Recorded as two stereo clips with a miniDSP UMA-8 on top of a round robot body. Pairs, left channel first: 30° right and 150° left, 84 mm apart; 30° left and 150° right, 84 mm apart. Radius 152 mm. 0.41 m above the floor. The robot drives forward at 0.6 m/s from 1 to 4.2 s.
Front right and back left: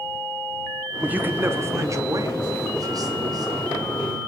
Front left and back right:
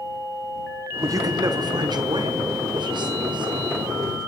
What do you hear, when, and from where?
1.0 s a man speaking: 145° right, 0.9 m; by 3.9 s 175° right, 2.5 m